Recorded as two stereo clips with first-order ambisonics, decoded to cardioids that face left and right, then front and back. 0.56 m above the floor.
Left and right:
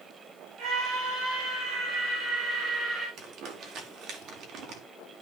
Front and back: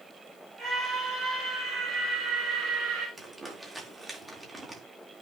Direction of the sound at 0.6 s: 110° right.